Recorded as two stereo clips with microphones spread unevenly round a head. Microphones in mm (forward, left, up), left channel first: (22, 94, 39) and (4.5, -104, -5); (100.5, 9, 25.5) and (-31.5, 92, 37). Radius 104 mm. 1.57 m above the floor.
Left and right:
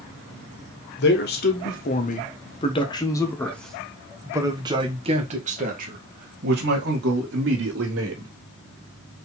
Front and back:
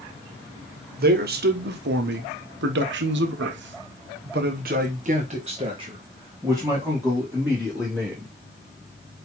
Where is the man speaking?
125° left, 1.8 m; by 8.3 s 125° right, 2.5 m.